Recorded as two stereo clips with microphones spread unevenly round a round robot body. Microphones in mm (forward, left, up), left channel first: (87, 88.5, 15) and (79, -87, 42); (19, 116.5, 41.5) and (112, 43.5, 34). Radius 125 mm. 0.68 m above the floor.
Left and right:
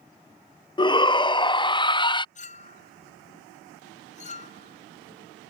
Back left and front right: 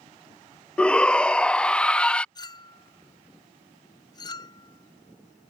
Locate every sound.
0.8 s a shout: 60° left
2.4 s a clink: 90° left